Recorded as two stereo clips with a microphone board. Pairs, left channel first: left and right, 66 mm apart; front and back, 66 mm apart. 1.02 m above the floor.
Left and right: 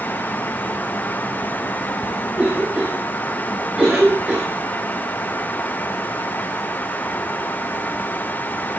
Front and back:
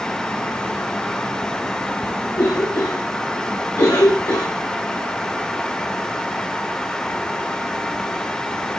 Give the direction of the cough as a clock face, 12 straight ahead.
1 o'clock.